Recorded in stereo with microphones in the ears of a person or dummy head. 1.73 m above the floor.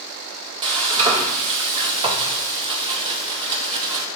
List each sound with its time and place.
0.6 s frying: 20° right (ahead or behind), 0.7 m